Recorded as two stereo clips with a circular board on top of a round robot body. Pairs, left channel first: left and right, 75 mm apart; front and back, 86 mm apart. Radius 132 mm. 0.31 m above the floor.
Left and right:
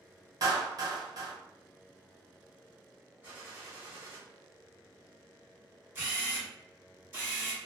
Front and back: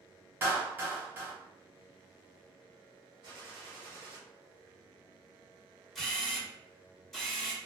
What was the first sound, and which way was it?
A clap, 120° right.